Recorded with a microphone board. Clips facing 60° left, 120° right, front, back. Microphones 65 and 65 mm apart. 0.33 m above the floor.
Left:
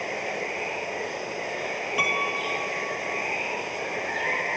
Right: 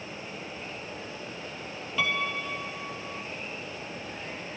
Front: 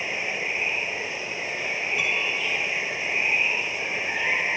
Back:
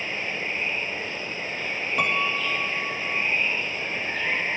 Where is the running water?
75° left.